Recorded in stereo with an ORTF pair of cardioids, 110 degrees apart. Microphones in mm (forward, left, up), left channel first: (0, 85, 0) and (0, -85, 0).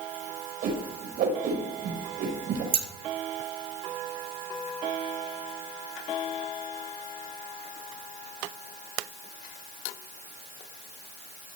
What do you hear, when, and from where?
0.6 s a whoosh: 65° right, 5 m
2.7 s scissors: 35° right, 1.8 m